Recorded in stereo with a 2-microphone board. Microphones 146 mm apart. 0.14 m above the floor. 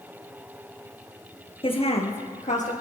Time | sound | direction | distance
1.6 | a woman speaking | 40° left (ahead or behind) | 2.5 m